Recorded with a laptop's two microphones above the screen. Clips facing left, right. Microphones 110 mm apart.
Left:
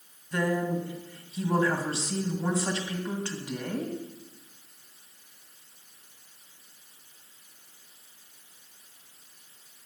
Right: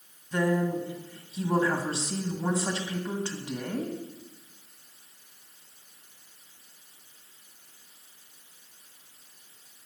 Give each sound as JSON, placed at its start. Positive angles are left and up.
{"t": 0.3, "sound": "a woman speaking", "side_deg": 0, "distance_m": 1.2}